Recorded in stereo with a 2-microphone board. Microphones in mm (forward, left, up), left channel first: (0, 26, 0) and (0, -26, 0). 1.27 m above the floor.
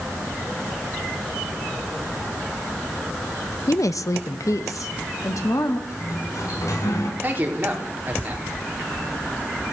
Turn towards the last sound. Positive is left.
turn(degrees=-35)  # may be behind; listen again after turning